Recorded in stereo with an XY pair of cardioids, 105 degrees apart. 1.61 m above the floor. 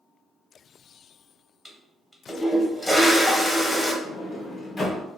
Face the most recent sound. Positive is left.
turn(degrees=30)